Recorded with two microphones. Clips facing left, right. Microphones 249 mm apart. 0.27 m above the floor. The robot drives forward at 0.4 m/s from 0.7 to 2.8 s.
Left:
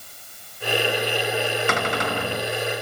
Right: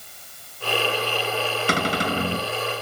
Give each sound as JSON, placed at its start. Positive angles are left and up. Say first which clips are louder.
{"t": 1.7, "sound": "a cupboard door", "louder": "right 1 dB", "side_deg": -35, "distance_m": 3.0}